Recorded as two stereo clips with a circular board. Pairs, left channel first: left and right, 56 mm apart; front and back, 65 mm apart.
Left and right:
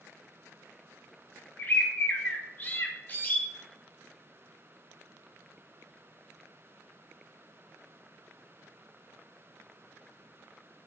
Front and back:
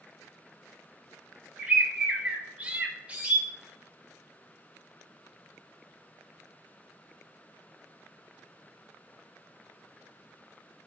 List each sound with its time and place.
1.6 s a bird: 120° left, 0.5 m